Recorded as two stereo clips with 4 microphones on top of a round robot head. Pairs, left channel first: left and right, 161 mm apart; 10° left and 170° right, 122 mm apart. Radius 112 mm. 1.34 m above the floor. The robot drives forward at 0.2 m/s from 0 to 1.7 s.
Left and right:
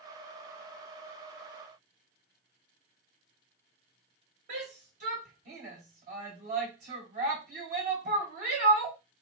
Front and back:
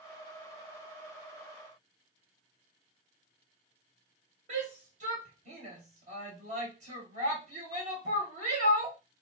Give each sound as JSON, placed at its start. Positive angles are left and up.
{"t": 4.5, "sound": "a shout", "azimuth_deg": -130, "distance_m": 1.7}